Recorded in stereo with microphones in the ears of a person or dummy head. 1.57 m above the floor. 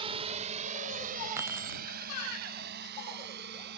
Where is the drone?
30° right (ahead or behind); by 3.8 s 60° right (ahead or behind).